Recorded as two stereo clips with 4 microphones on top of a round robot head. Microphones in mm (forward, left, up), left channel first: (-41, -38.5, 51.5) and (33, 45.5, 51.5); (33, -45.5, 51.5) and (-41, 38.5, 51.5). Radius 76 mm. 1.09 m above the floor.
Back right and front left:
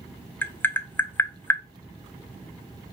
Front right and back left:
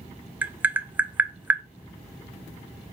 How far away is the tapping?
About 0.6 m.